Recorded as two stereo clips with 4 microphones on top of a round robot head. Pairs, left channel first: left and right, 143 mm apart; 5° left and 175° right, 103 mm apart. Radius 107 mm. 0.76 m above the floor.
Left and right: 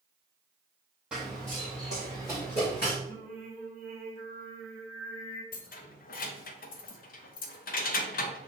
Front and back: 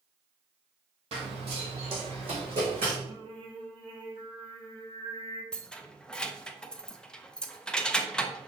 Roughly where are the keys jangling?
Left.